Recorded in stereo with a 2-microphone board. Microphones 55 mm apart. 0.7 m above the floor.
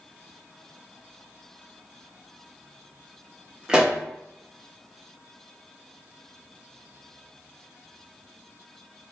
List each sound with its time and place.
3.7 s a pop: 15° right (ahead or behind), 0.7 m